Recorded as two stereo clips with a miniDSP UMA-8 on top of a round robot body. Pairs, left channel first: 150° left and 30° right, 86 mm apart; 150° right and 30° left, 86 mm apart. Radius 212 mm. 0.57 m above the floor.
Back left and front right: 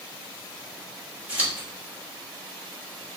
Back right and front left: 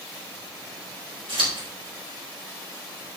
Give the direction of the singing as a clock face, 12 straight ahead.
No singing in this recording.